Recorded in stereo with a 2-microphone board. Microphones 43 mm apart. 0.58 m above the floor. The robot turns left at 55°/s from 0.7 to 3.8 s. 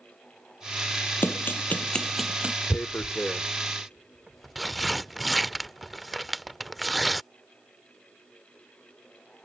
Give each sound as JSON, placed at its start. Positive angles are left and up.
{"t": 1.2, "sound": "running footsteps", "side_deg": 55}
{"t": 2.7, "sound": "tearing paper", "side_deg": 60}